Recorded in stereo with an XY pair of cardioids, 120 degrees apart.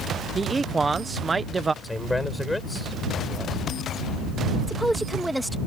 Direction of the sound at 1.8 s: 10° left.